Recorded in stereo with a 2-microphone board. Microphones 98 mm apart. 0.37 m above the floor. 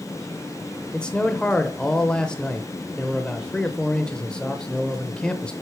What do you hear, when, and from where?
0.9 s a man speaking: 10° left (ahead or behind), 0.9 m